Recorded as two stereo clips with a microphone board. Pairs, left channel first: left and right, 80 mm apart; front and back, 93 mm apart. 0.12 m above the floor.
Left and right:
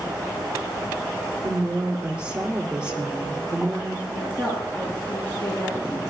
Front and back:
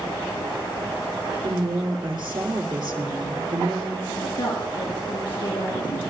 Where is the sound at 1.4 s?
165° right, 2.5 m.